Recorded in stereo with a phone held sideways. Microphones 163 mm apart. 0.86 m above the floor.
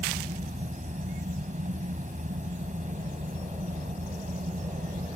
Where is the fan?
45° right (ahead or behind).